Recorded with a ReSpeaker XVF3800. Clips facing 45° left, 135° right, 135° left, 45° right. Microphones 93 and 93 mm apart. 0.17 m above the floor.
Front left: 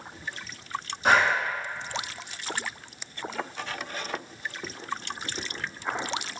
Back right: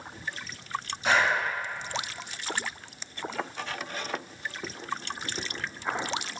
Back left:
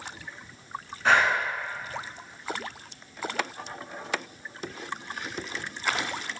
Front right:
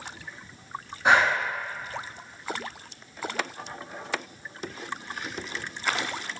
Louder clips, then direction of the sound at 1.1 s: Front left 3 dB, front right 1 dB; 25° left.